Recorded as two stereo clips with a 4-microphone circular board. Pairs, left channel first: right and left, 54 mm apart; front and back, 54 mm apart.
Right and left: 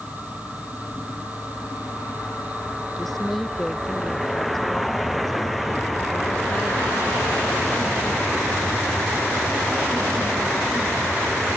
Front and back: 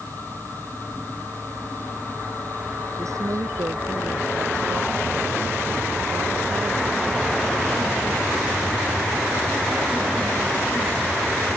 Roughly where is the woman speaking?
Behind.